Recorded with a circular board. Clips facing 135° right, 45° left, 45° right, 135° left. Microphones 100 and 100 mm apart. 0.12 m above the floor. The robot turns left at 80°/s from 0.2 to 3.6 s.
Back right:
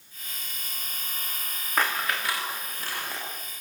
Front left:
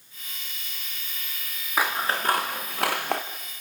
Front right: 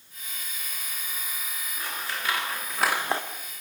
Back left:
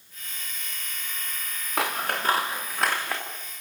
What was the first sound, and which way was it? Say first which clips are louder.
Scissors: front left 2 dB, back left 8 dB; 130° left.